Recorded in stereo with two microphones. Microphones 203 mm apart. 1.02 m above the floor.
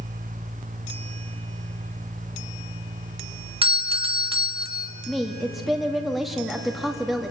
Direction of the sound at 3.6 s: 25° right (ahead or behind).